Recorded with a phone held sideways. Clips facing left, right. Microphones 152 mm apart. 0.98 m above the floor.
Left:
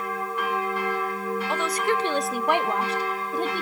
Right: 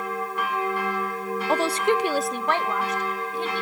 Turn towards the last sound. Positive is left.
turn(degrees=45)  # may be behind; listen again after turning